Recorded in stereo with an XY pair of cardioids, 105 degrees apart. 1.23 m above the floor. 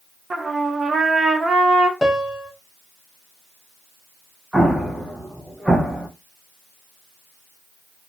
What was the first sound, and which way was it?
A trumpet, 30° right.